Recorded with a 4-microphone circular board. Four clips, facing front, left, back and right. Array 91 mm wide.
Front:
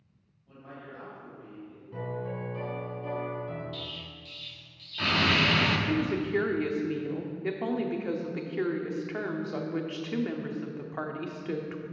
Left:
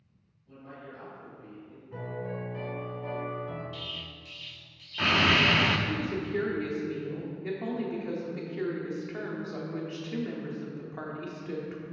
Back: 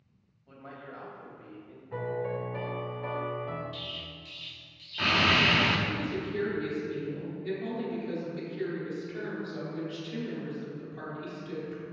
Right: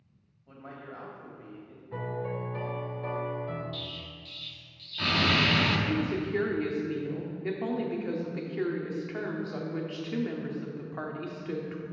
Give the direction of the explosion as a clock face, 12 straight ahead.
9 o'clock.